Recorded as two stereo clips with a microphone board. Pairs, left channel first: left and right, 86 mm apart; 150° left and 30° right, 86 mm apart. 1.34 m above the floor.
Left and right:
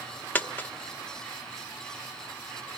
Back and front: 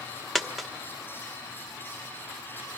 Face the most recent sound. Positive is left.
turn(degrees=60)